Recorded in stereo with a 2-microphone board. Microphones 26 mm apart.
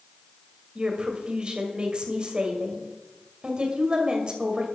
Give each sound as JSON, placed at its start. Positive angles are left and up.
{"t": 0.8, "sound": "a woman speaking", "side_deg": -30, "distance_m": 1.9}